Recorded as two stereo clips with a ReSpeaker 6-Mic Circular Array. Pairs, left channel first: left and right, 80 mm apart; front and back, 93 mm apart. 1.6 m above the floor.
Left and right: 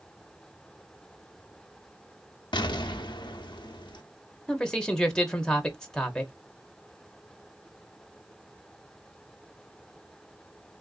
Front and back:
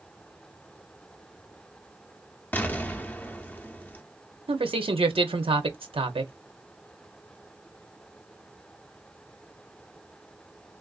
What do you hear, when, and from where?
2.5 s an explosion: 70° left, 0.5 m
4.5 s a man speaking: 170° left, 0.6 m